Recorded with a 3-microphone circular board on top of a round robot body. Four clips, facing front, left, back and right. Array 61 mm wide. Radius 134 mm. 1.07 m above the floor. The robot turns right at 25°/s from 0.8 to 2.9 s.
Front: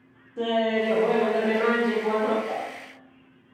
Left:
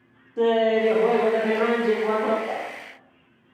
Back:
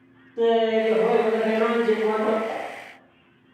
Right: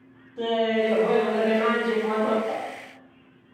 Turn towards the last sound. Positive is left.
turn(degrees=110)